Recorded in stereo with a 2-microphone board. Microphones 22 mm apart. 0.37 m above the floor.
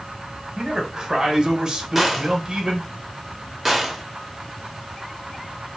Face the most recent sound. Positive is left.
turn(degrees=-5)  # may be behind; listen again after turning